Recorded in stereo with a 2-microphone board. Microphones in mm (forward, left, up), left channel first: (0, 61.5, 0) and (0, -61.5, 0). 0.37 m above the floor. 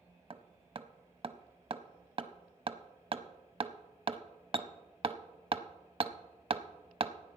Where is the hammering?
45° right (ahead or behind), 0.6 m.